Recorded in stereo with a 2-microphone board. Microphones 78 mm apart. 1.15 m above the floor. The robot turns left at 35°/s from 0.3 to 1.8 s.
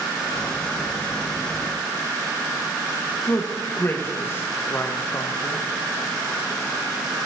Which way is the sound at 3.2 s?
30° left (ahead or behind).